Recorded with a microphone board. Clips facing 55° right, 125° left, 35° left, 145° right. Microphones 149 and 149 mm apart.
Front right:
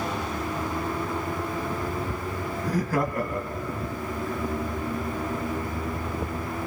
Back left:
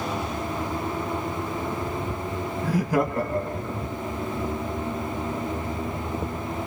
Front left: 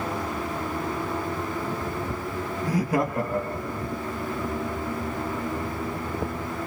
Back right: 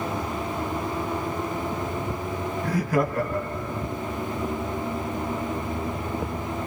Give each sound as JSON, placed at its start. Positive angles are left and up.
{"t": 2.6, "sound": "laughter", "azimuth_deg": 40, "distance_m": 1.2}